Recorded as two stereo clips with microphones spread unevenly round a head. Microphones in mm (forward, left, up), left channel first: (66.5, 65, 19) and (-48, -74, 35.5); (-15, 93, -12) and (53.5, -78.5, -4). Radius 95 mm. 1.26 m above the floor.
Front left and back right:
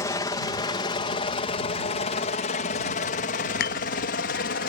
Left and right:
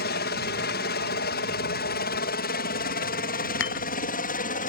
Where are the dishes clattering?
90° left.